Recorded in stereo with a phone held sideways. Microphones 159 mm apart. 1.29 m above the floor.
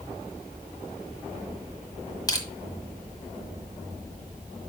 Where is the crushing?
25° left (ahead or behind), 1.7 m.